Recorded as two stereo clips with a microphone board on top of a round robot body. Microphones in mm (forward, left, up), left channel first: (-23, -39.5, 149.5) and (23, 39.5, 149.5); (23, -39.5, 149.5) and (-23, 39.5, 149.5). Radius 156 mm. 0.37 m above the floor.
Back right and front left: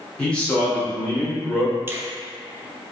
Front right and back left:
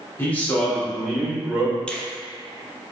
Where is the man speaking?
55° right, 1.4 m; by 1.8 s 170° left, 1.5 m.